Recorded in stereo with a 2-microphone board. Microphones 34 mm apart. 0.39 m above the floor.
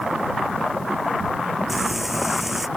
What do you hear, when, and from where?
1.7 s frying: 5° right (ahead or behind)